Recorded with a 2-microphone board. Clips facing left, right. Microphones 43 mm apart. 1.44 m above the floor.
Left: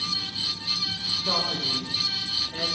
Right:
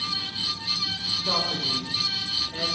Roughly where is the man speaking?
Centre.